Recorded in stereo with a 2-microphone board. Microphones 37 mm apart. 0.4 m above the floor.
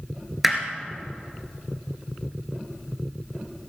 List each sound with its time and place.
0.4 s hammering: 5° right (ahead or behind), 1.9 m